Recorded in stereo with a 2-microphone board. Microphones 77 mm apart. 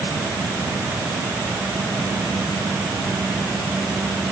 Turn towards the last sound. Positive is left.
No sound to turn to.